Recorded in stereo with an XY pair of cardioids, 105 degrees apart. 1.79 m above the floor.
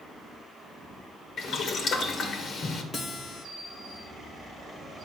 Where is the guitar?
35° left, 1.6 m.